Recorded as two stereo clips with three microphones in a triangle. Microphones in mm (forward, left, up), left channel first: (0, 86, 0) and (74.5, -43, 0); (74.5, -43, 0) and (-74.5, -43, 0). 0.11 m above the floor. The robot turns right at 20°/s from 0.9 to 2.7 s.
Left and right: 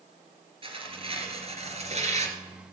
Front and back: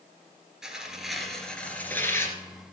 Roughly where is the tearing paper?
Right.